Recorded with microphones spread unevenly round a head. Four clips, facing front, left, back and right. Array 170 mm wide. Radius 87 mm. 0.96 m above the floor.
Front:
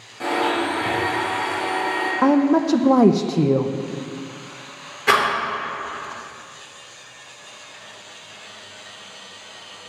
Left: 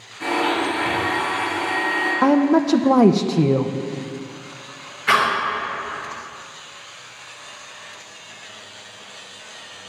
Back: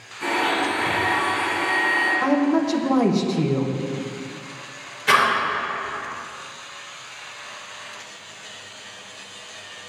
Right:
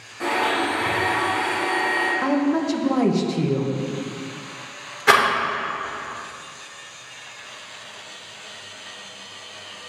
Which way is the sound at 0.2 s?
25° right.